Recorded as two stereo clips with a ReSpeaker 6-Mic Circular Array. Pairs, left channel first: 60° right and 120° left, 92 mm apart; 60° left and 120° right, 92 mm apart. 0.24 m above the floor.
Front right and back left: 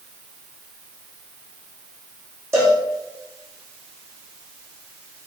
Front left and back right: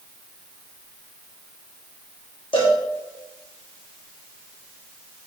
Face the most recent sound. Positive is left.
turn(degrees=60)